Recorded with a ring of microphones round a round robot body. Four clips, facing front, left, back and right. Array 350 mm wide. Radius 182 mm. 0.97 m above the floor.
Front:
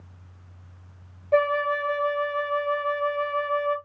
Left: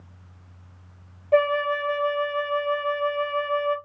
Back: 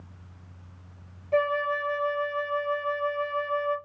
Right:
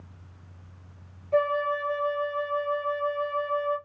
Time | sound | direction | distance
1.3 | a flute | 65° left | 1.3 m